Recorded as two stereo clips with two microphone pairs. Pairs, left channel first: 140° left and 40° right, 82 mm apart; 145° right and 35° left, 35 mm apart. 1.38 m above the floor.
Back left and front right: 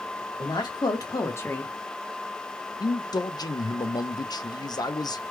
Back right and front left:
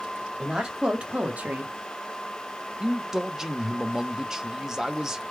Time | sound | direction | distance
0.4 | a woman speaking | 110° left | 1.6 m
2.8 | a man speaking | 110° left | 0.5 m